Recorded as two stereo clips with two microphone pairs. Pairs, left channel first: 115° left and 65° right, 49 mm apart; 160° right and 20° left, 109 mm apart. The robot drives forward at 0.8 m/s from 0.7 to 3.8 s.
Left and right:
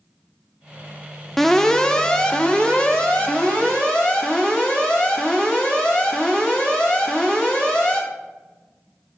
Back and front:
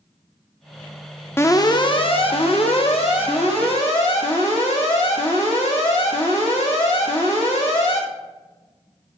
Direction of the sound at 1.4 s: 175° right.